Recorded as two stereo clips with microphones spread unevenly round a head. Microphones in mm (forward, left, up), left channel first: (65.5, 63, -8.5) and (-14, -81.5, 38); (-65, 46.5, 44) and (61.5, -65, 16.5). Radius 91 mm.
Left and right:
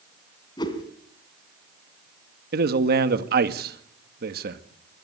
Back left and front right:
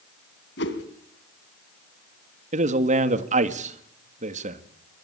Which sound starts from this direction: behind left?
A whoosh, at 0.6 s.